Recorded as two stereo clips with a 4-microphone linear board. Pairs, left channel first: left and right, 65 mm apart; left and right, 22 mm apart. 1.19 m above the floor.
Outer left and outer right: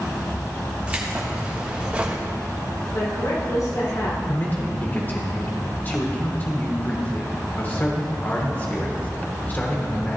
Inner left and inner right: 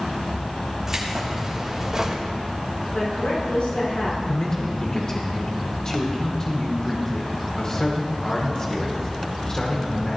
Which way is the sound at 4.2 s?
30° left (ahead or behind).